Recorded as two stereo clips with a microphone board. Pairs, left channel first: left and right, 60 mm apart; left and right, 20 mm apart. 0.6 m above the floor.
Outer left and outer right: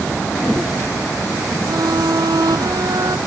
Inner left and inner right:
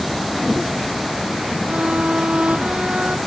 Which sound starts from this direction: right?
A violin, at 1.7 s.